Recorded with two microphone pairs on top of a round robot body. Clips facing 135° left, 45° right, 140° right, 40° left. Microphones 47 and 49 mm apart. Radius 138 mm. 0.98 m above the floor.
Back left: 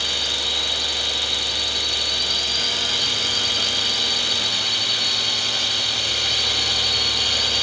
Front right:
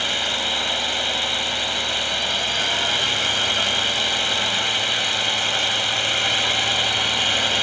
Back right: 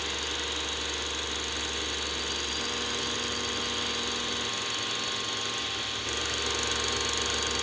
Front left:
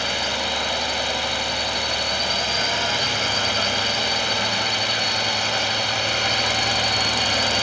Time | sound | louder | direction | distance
0.0 | a drone | front right 2 dB, front left 9 dB | 15° left | ?